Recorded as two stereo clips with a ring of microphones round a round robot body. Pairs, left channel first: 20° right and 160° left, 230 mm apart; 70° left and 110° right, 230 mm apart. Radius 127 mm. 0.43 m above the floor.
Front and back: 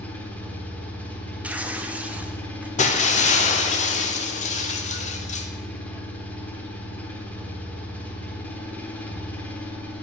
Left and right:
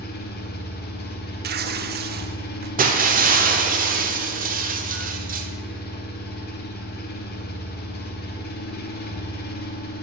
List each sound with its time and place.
0.0 s an engine running: 55° left, 0.9 m
1.4 s tearing paper: 120° right, 0.5 m
2.8 s breaking glass: 70° right, 0.8 m